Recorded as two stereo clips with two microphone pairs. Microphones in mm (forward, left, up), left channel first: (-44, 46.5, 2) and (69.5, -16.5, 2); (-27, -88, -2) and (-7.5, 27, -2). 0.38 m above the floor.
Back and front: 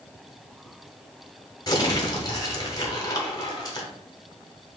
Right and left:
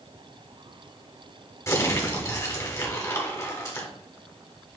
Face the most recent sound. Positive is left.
turn(degrees=-155)